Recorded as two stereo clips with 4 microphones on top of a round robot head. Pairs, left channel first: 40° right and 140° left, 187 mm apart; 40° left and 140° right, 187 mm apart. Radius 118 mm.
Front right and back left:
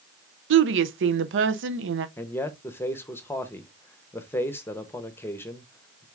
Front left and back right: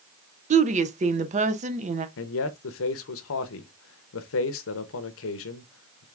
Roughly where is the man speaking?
Ahead left.